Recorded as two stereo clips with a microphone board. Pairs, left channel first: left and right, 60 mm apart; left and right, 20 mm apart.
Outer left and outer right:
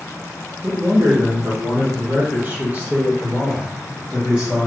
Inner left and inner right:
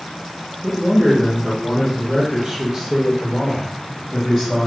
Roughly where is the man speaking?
Right.